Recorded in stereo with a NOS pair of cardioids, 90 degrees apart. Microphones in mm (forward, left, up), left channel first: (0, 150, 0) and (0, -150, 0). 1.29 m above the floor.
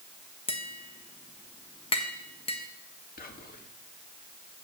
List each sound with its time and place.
0.5 s tapping: 20° left, 1.4 m
3.2 s whispering: 30° left, 2 m